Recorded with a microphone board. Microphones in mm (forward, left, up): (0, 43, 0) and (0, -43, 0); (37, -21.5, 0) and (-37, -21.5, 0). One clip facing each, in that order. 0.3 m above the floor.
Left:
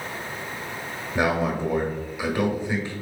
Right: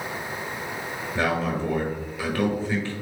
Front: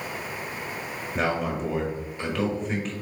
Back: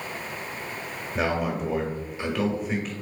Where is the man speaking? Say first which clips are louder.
Left 2 dB, even; 100° left, 1.1 m.